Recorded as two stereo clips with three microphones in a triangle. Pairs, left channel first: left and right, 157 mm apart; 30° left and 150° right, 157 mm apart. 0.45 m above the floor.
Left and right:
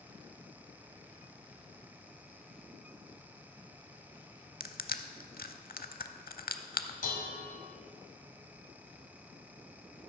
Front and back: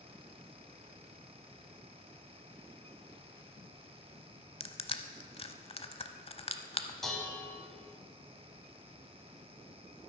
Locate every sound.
4.6 s crushing: 75° left, 0.6 m
7.0 s dishes clattering: 115° left, 1.7 m